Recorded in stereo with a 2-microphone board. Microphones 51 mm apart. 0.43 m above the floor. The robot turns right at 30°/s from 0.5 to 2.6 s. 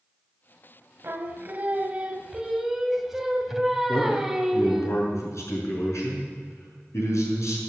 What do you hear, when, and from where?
1.0 s singing: 55° right, 1.3 m; by 4.9 s 5° right, 1.3 m
3.9 s a man speaking: 75° left (ahead or behind), 6 m